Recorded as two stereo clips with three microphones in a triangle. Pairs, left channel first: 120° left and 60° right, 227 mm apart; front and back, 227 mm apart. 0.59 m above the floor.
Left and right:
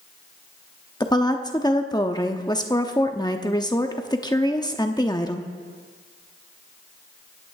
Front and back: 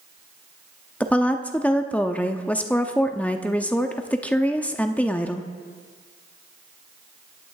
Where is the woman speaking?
75° left, 0.7 m.